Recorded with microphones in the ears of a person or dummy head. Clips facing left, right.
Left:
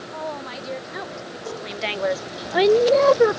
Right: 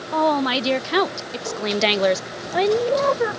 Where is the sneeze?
I don't hear a sneeze.